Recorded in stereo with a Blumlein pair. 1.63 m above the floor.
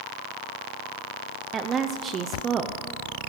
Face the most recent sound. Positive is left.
turn(degrees=-25)